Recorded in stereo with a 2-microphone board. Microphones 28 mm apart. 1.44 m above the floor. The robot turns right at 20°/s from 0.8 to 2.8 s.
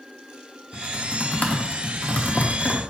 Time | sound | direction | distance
0.7 | typing on a keyboard | 40° left (ahead or behind) | 0.9 m